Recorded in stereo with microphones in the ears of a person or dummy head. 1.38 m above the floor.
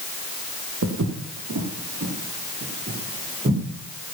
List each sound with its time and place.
0.8 s footsteps: 65° right (ahead or behind), 3 m; by 3.6 s 25° right (ahead or behind), 4.5 m